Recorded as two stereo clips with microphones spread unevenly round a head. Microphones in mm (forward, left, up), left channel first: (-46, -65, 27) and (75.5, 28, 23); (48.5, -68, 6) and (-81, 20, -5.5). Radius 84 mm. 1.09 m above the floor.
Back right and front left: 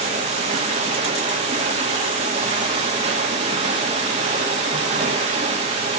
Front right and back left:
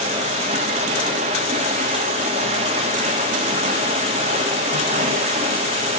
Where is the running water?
90° left, 1.9 m.